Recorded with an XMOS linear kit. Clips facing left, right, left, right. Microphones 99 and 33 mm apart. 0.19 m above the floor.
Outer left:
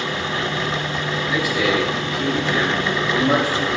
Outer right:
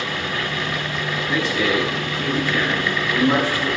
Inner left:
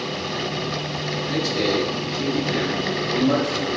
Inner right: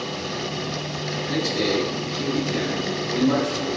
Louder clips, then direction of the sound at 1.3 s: Even, inner left 1 dB; 5° left (ahead or behind).